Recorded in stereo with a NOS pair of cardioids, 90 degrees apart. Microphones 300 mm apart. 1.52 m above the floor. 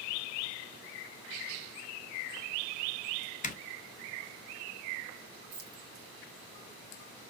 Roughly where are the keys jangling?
Ahead right.